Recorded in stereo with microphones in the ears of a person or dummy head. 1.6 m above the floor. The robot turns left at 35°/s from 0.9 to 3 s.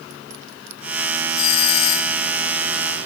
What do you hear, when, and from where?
1.4 s a doorbell: 85° left, 1.7 m; by 2.2 s 65° left (ahead or behind), 1.7 m